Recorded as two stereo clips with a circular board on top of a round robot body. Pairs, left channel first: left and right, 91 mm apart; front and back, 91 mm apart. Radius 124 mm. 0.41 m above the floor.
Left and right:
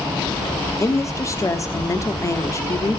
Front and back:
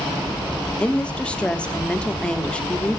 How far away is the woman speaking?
About 1.3 m.